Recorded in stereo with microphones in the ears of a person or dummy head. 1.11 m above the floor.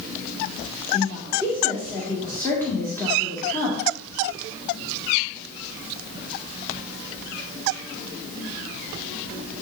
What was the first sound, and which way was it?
A woman speaking, 15° left (ahead or behind).